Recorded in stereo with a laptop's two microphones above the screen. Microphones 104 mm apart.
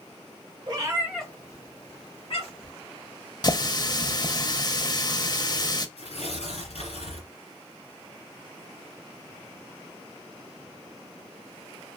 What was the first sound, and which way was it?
A cat meowing, 40° right (ahead or behind).